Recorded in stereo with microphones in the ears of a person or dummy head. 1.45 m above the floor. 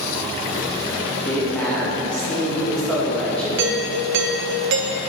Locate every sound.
1.2 s a woman speaking: 5° left (ahead or behind), 2 m
3.6 s a doorbell: 60° right (ahead or behind), 0.7 m